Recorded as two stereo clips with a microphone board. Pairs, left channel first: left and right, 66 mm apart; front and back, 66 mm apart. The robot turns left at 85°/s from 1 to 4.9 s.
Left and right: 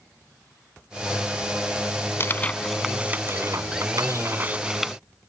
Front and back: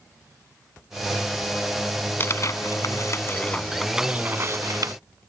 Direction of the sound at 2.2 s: 50° left.